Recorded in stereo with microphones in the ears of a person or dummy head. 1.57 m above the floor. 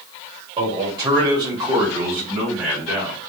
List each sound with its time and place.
0.6 s a man speaking: 35° right (ahead or behind), 2.5 m; by 3.2 s 5° right (ahead or behind), 4 m